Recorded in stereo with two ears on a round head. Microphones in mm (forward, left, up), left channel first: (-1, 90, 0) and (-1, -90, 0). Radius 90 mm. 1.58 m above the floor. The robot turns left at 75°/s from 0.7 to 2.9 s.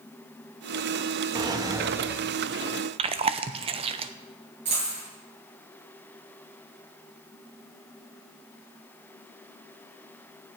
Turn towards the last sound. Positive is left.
turn(degrees=-35)  # may be behind; listen again after turning